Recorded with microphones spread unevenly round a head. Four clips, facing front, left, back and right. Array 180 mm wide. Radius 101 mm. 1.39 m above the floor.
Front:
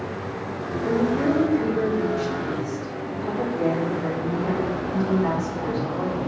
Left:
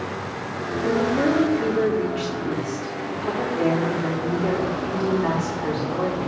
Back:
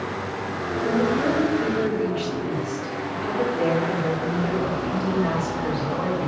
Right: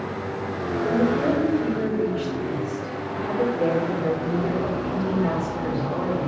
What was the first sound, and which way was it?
A woman speaking, 85° left.